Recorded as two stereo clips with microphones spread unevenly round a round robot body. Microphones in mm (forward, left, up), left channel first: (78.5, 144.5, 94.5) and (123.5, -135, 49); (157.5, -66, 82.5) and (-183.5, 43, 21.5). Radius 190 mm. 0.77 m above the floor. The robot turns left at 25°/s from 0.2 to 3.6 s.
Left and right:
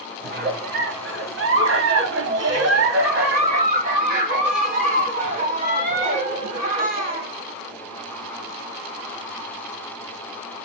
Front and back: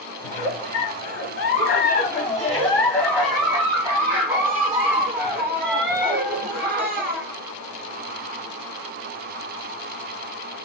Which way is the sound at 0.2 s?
40° right.